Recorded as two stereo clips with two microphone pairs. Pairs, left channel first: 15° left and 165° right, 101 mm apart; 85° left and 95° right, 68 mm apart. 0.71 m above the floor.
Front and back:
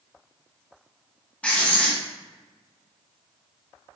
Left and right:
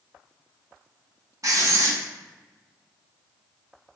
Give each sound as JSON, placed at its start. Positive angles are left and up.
{"t": 1.4, "sound": "writing", "azimuth_deg": -60, "distance_m": 1.0}